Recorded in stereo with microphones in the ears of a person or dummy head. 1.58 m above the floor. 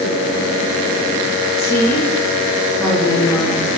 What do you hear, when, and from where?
1.6 s a woman speaking: 10° left (ahead or behind), 4 m